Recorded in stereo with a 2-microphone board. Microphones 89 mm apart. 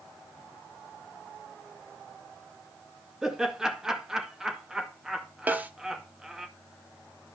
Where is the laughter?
5° right (ahead or behind), 2.0 m.